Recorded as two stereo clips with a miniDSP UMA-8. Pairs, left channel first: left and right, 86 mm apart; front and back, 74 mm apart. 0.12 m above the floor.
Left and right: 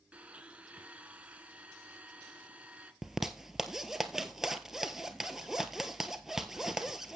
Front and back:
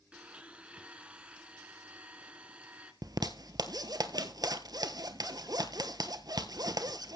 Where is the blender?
135° right, 1.4 m.